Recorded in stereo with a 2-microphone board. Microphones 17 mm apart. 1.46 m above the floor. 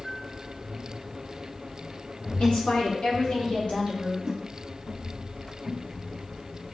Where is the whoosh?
40° right (ahead or behind), 1.2 m.